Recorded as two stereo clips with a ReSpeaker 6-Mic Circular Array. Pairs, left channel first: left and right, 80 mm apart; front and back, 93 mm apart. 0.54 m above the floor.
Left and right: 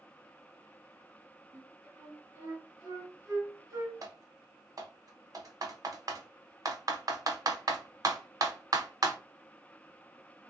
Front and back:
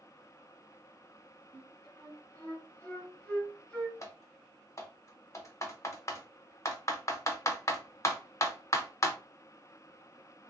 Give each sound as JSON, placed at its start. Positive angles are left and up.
{"t": 1.5, "sound": "a flute", "azimuth_deg": -65, "distance_m": 1.7}
{"t": 4.0, "sound": "typing on a keyboard", "azimuth_deg": -55, "distance_m": 0.6}